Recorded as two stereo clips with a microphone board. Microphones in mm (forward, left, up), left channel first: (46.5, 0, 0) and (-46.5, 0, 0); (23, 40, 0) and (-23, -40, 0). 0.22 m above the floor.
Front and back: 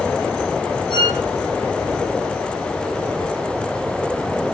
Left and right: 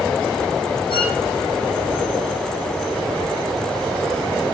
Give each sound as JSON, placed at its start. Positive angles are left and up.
{"t": 0.9, "sound": "a violin", "azimuth_deg": 30, "distance_m": 8.5}